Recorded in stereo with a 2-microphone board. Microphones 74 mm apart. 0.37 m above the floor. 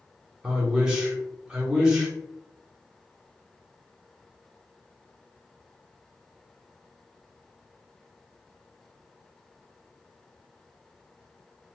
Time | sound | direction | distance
0.4 | a man speaking | 10° right (ahead or behind) | 1.0 m